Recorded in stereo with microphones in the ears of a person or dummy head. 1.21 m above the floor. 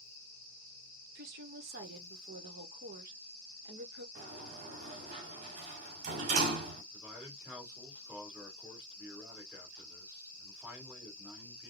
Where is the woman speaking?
60° right (ahead or behind), 1.1 m.